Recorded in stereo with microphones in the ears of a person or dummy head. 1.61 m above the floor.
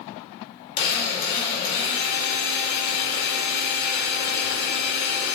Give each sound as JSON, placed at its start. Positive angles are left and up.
{"t": 0.8, "sound": "a drill", "side_deg": 55, "distance_m": 4.0}